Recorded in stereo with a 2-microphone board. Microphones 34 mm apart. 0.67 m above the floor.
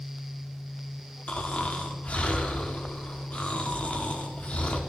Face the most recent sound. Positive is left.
turn(degrees=40)  # may be behind; listen again after turning